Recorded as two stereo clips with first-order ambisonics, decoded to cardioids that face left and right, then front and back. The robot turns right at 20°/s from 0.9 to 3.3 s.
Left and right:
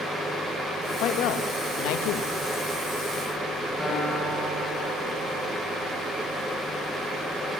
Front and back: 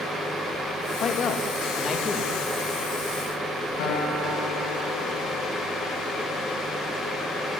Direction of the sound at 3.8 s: 5° right.